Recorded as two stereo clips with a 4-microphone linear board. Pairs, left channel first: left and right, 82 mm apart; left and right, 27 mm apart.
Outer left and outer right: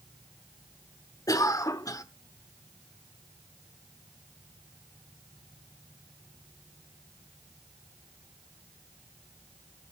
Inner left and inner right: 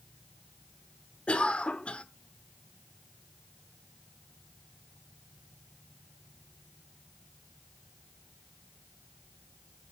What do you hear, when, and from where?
1.3 s a cough: 45° left (ahead or behind), 1.2 m